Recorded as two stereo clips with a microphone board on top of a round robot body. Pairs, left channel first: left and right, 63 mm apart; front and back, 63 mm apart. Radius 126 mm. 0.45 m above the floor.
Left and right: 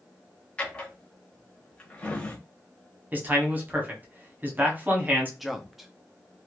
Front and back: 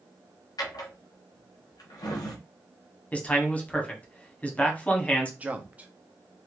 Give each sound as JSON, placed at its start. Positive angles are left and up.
{"t": 0.6, "sound": "a drawer", "azimuth_deg": 15, "distance_m": 0.8}
{"t": 3.1, "sound": "a man speaking", "azimuth_deg": -50, "distance_m": 1.2}
{"t": 5.4, "sound": "a man speaking", "azimuth_deg": -175, "distance_m": 0.8}